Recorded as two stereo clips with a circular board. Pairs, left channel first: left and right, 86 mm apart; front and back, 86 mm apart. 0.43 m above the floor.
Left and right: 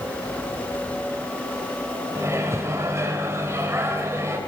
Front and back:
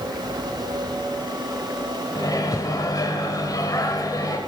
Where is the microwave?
35° right, 1.6 m.